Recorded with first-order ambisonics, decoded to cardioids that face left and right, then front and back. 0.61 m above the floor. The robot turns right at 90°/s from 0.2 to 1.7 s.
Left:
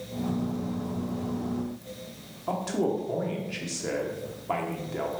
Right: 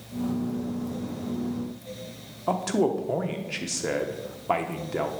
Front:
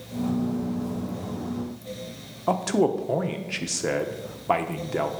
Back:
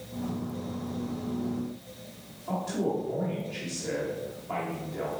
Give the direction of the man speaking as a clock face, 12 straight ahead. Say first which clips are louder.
Right 3 dB, front 8 dB; 1 o'clock.